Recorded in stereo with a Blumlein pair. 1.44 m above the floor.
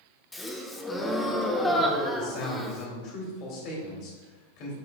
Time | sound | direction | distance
0.3 | a gasp | 10° left | 0.8 m
2.1 | a man speaking | 40° left | 2.5 m